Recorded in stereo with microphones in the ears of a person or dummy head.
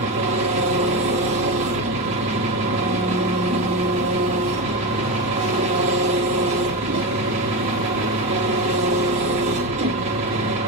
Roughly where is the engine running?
Right.